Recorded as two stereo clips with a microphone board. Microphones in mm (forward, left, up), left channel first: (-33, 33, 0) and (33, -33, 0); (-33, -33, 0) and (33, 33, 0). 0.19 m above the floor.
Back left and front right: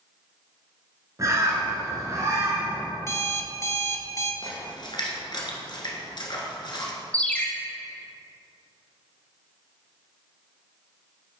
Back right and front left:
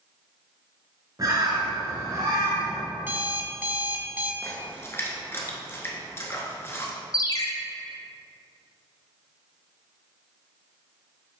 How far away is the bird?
About 1.7 m.